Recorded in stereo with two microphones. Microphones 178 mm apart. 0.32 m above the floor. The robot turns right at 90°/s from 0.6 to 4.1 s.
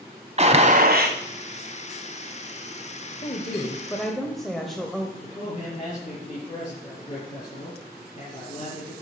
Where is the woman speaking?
100° left, 1.2 m; by 5.1 s straight behind, 1.2 m.